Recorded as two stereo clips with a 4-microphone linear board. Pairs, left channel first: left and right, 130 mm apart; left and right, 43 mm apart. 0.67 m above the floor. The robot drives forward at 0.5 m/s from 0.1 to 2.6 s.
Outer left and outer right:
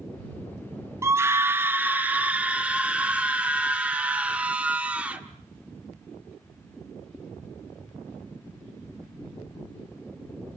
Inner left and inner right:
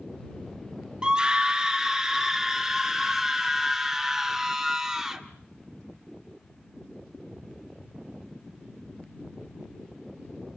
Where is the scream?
20° right (ahead or behind), 0.6 m; by 5.2 s 10° right (ahead or behind), 1.2 m.